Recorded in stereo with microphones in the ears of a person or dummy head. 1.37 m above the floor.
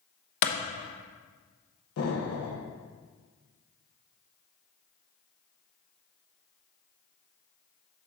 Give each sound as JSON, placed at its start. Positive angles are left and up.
{"t": 0.4, "sound": "a clap", "side_deg": 60, "distance_m": 0.9}
{"t": 2.0, "sound": "an explosion", "side_deg": 70, "distance_m": 1.1}